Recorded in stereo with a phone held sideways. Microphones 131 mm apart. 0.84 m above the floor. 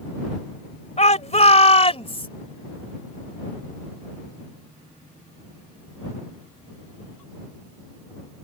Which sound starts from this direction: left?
A shout, at 1.0 s.